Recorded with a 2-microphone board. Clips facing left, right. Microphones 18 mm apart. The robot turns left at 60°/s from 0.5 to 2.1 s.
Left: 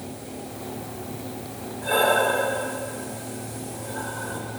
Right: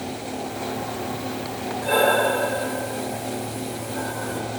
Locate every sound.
1.8 s breathing: 5° left (ahead or behind), 1.1 m; by 4.4 s 15° left (ahead or behind), 1.1 m